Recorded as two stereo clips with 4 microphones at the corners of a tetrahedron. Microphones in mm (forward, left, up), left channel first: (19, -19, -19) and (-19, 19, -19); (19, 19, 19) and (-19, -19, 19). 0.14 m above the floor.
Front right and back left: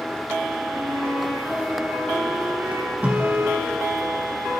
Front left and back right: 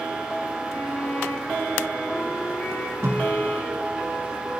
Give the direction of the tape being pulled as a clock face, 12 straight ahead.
5 o'clock.